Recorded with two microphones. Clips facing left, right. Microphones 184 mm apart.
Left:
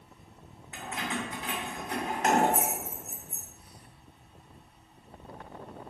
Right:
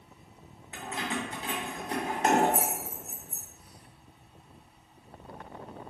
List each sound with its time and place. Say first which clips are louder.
0.7 s keys jangling: right 1 dB; 35° right (ahead or behind), 0.6 m